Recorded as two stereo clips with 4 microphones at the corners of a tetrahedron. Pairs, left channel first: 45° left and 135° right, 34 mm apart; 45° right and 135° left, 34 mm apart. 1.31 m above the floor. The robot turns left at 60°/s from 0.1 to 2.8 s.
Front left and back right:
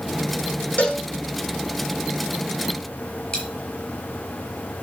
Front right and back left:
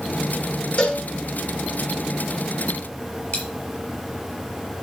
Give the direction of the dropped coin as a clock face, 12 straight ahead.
1 o'clock.